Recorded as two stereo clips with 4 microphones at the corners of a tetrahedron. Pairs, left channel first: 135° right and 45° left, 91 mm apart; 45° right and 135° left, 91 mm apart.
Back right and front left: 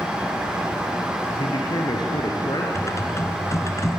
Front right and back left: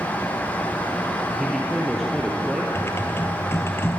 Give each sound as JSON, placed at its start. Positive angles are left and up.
{"t": 1.4, "sound": "a man speaking", "azimuth_deg": -140, "distance_m": 2.0}
{"t": 2.8, "sound": "typing on a keyboard", "azimuth_deg": -95, "distance_m": 1.9}